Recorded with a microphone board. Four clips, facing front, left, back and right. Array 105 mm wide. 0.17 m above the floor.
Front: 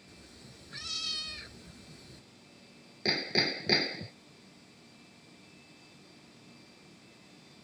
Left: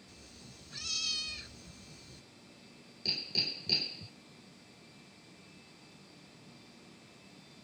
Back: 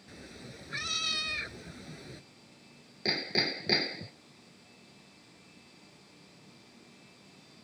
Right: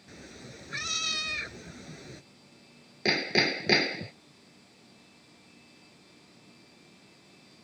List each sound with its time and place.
0.1 s a cat meowing: 120° right
3.0 s hammering: 85° right